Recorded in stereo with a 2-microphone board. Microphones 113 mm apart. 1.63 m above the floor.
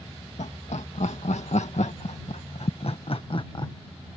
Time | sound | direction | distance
0.4 | laughter | 85° left | ?